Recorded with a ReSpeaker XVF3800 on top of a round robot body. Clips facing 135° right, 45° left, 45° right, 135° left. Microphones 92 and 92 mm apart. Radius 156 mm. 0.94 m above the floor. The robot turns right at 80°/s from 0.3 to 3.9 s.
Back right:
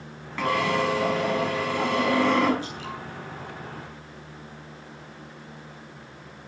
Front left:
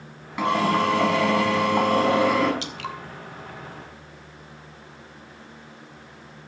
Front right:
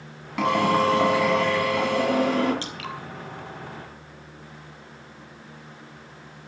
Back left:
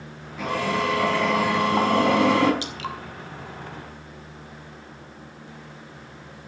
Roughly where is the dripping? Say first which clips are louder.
Front left 1 dB, back left 2 dB; ahead left.